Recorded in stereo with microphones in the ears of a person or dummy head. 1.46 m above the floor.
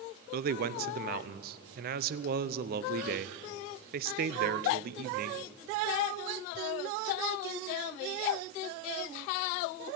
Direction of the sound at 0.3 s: 50° right (ahead or behind).